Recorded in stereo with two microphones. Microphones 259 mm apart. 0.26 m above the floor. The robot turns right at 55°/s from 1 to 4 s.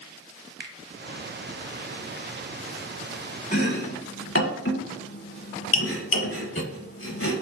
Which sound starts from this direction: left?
Chopping, at 3.5 s.